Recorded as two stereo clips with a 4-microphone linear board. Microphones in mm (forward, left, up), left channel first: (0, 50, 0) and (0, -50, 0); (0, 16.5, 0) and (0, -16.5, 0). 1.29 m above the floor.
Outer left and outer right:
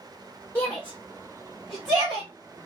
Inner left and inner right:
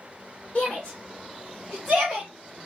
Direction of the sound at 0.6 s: 20° left (ahead or behind).